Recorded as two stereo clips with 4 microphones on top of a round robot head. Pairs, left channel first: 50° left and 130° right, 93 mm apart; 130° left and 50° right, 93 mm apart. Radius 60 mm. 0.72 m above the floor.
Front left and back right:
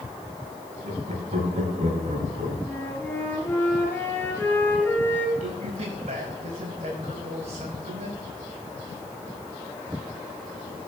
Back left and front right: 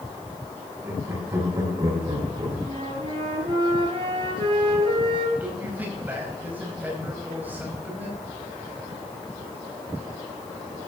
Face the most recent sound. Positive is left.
turn(degrees=-125)